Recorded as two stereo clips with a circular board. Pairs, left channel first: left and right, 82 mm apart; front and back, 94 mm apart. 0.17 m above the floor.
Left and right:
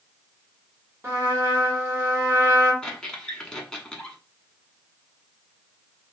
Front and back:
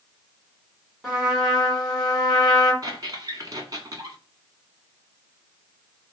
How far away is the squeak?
About 0.9 m.